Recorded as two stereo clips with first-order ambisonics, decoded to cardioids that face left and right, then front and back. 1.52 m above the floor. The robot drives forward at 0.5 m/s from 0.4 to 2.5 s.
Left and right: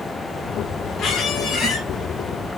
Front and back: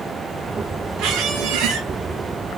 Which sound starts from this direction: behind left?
A squeak, at 1.0 s.